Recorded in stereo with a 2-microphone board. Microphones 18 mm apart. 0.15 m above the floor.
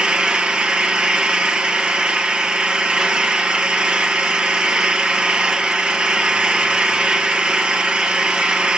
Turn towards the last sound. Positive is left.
turn(degrees=-70)  # may be behind; listen again after turning